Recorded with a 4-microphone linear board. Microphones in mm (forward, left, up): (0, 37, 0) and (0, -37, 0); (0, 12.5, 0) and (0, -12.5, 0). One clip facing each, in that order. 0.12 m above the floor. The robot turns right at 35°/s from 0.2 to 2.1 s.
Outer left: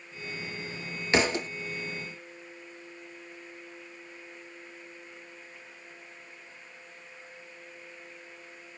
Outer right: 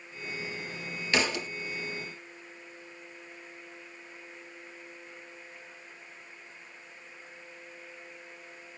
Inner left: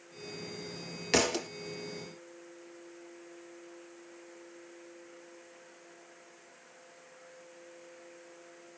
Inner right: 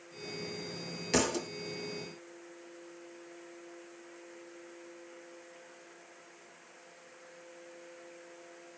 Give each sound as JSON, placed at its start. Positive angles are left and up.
{"t": 1.1, "sound": "a thud", "side_deg": 30, "distance_m": 0.8}